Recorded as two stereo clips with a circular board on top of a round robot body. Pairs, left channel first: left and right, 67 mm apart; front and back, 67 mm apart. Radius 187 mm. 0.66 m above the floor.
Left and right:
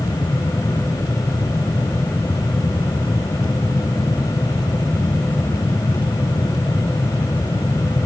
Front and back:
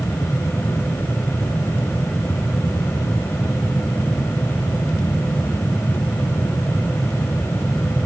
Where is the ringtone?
I don't hear a ringtone.